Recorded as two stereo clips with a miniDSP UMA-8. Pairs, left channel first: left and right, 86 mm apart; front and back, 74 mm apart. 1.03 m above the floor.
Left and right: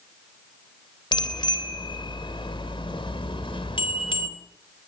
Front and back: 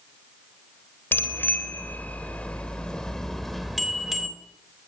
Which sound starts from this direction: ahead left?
A bicycle bell, at 1.1 s.